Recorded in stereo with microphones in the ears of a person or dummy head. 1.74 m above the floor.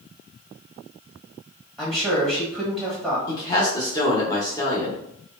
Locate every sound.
1.8 s a man speaking: 5° right (ahead or behind), 1.2 m
3.3 s a man speaking: 20° left (ahead or behind), 1.0 m